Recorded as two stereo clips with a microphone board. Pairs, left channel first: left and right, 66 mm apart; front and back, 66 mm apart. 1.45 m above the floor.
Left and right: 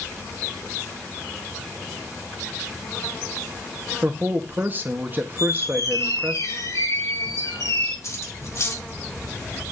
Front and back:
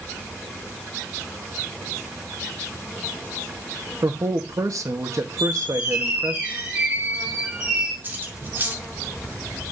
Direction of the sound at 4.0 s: 150° right.